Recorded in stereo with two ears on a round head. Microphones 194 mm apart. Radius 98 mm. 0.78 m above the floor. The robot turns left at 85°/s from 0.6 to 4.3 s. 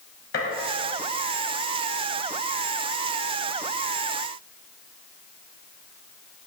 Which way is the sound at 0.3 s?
50° left (ahead or behind).